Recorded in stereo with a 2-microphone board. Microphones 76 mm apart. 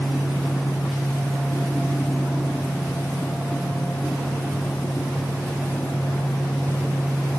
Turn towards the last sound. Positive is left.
No sound to turn to.